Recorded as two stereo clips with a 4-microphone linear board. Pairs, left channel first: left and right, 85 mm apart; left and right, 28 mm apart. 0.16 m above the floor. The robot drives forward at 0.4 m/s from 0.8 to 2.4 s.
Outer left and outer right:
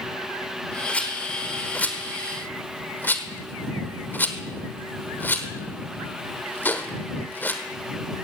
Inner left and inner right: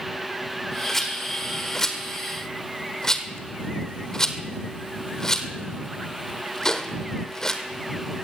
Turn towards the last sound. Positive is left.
turn(degrees=25)  # may be behind; listen again after turning